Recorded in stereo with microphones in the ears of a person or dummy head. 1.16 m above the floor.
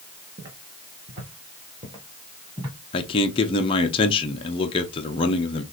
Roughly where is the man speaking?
Left.